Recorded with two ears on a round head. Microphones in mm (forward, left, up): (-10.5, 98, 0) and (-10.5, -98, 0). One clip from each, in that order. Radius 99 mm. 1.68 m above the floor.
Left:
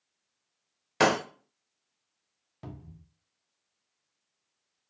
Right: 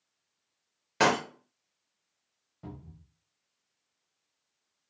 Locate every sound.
1.0 s breaking glass: 15° left (ahead or behind), 0.8 m
2.6 s a cupboard door: 65° left (ahead or behind), 0.5 m